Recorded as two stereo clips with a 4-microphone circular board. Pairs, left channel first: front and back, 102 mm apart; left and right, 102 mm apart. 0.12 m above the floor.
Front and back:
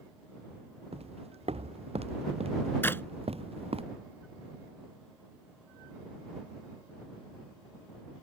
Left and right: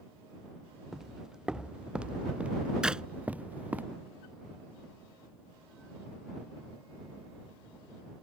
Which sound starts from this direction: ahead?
A clap, at 2.8 s.